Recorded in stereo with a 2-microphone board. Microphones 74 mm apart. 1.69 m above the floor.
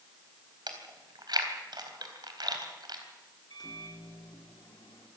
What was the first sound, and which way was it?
Chewing, 70° right (ahead or behind).